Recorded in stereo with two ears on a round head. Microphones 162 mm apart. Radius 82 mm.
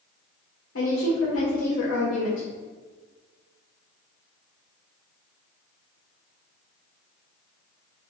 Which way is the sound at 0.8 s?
80° left.